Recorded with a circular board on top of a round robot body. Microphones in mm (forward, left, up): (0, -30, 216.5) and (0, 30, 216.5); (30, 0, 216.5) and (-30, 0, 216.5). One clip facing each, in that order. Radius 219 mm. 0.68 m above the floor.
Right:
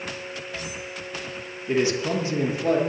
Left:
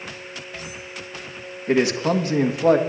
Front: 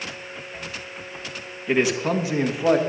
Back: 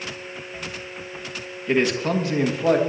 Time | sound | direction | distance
1.7 | a man speaking | 85° left | 1.6 m